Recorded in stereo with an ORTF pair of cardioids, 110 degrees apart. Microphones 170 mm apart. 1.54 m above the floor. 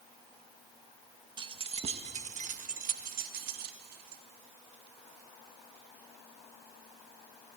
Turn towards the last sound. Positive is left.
turn(degrees=-70)